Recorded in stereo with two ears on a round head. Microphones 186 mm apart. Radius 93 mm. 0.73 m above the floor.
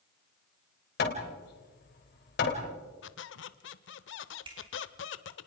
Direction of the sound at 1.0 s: 55° left (ahead or behind).